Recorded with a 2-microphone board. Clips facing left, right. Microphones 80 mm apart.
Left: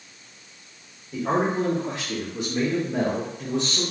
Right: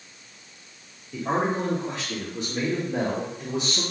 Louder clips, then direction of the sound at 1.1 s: Left 2 dB; 40° left (ahead or behind).